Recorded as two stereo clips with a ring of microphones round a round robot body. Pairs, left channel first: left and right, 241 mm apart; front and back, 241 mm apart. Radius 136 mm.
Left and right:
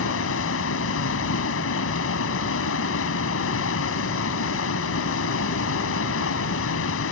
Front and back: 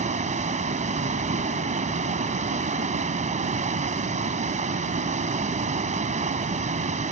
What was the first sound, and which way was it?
Running water, 120° left.